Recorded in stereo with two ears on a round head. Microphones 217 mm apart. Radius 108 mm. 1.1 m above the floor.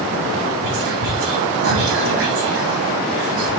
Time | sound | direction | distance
0.6 | whispering | 60° right (ahead or behind) | 3 m